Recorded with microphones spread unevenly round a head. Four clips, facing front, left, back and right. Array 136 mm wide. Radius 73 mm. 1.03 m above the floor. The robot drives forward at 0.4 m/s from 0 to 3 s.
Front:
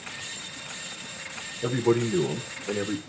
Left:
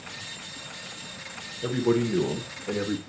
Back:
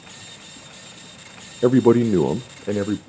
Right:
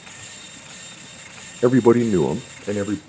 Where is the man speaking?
130° right, 0.5 m; by 3.0 s 155° right, 1.0 m.